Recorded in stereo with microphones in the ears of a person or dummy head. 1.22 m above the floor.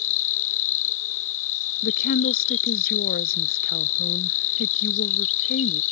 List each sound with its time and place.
0.0 s an insect: 80° left
1.8 s a woman speaking: 60° left (ahead or behind)